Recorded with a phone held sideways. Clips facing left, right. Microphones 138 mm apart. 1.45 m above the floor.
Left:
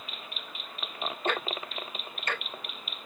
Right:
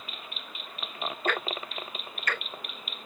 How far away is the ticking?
About 0.9 m.